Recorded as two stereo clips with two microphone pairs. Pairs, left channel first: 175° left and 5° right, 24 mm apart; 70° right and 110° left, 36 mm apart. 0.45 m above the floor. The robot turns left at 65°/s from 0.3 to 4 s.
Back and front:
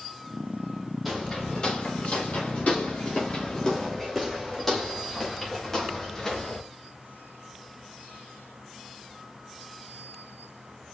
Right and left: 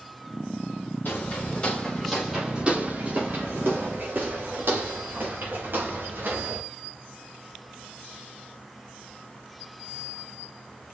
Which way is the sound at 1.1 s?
90° right.